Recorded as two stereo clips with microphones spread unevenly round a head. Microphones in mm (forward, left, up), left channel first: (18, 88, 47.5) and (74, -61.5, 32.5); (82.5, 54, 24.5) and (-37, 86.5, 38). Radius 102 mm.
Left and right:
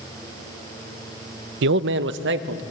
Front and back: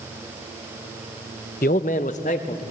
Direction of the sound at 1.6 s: 70° right.